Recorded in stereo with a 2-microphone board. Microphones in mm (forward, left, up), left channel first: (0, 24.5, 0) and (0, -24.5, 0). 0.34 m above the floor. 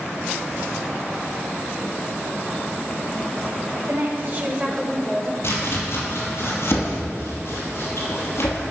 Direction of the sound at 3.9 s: 55° right (ahead or behind).